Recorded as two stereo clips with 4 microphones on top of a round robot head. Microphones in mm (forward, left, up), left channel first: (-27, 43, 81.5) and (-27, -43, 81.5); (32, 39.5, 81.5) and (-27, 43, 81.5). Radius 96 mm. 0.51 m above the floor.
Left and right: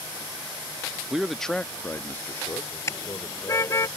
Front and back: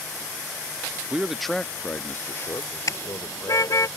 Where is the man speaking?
160° right; by 3.9 s 35° left.